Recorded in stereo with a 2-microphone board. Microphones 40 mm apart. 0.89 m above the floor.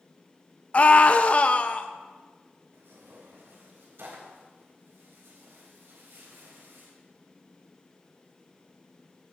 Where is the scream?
40° left (ahead or behind), 0.5 m.